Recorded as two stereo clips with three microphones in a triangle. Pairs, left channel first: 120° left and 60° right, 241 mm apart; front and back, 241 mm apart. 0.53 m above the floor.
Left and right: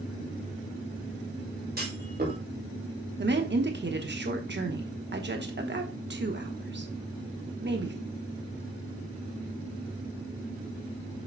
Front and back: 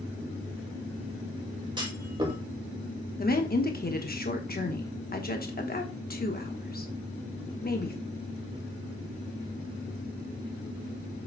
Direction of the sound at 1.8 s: 110° right.